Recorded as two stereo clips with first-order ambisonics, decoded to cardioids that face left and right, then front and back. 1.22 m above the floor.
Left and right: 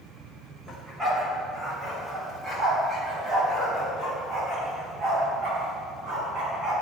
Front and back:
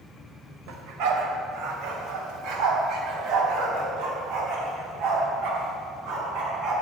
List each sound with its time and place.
0.7 s a dog barking: 170° right, 2.5 m; by 6.7 s 135° right, 5.5 m